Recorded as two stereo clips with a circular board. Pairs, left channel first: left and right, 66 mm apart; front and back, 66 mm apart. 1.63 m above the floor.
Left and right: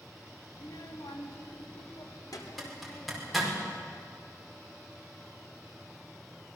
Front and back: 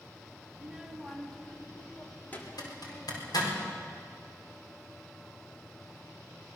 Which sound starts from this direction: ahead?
A zipper, at 2.6 s.